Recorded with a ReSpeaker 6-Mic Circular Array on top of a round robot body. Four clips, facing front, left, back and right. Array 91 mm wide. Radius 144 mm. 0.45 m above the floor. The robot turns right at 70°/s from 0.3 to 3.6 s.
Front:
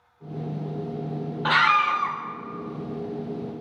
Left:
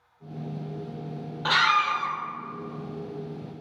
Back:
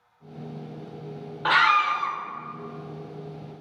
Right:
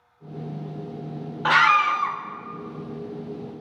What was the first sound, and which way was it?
A scream, 100° right.